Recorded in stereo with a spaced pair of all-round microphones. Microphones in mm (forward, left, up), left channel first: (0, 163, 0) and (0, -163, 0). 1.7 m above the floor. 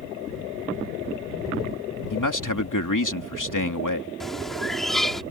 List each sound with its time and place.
2.1 s a man speaking: 80° left
4.2 s a bird: centre (ahead or behind)